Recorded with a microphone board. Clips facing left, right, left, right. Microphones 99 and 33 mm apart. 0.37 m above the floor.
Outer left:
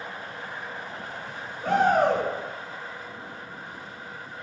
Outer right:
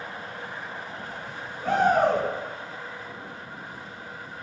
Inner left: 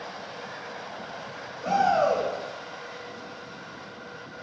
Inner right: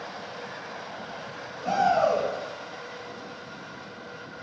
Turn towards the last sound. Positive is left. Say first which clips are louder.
# even, even
turn(degrees=-5)  # may be behind; listen again after turning